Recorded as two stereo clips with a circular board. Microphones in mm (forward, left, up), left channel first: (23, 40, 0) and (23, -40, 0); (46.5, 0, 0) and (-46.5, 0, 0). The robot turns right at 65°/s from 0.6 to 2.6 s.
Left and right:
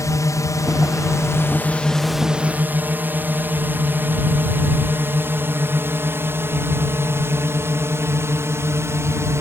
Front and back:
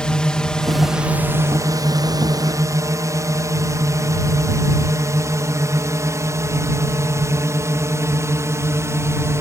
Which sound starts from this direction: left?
A drone, at 0.0 s.